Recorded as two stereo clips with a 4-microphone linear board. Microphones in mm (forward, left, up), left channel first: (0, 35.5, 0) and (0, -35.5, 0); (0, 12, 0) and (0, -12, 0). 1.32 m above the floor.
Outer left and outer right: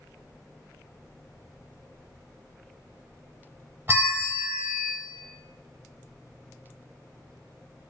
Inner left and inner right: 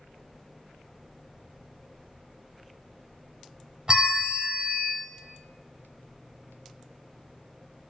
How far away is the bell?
About 0.7 m.